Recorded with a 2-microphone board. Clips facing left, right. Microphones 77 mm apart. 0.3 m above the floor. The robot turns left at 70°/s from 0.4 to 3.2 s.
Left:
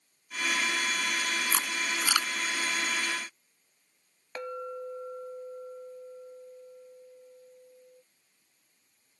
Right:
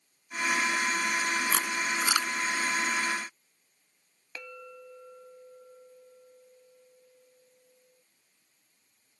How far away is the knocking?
I don't hear knocking.